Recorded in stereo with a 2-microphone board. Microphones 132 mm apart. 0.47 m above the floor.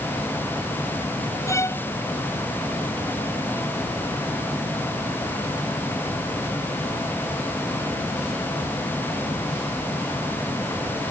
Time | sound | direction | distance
1.5 | a violin | 20° left (ahead or behind) | ?